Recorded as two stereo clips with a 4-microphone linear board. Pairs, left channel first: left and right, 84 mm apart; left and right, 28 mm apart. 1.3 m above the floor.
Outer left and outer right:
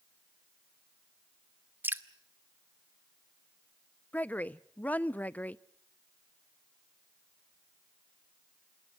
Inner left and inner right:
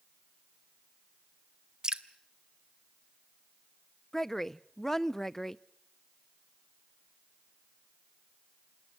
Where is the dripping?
25° right (ahead or behind), 0.8 m.